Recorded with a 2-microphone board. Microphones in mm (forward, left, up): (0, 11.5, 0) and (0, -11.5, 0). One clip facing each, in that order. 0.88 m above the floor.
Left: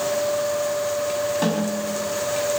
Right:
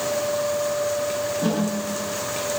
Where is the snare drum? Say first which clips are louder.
Left 1 dB; 80° left, 6 m.